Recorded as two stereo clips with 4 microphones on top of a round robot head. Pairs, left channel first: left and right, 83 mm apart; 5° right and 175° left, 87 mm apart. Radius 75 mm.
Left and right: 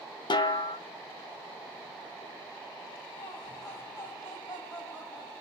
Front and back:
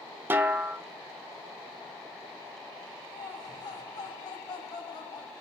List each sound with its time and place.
0.3 s a snare drum: 110° left, 0.6 m
3.1 s laughter: 30° left, 2.5 m